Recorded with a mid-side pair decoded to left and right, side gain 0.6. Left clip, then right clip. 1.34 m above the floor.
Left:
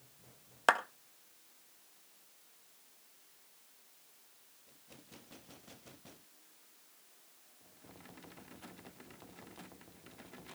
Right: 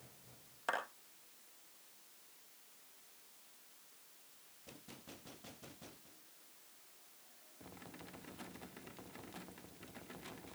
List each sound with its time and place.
0.7 s a clap: 60° left, 1.8 m